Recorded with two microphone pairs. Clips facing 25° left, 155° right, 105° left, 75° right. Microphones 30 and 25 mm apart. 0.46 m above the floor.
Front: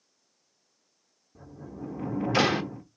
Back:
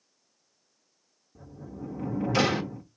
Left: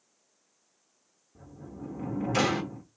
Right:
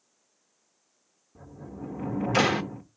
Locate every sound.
1.4 s a sliding door: 30° right, 0.7 m